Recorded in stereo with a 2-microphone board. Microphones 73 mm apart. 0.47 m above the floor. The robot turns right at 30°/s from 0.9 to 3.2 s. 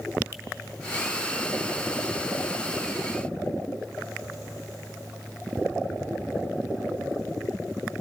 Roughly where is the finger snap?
Right.